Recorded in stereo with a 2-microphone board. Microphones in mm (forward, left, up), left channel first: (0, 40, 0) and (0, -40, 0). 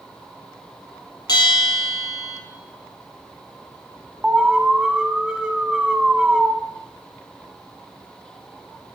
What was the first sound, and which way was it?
A bell, 65° left (ahead or behind).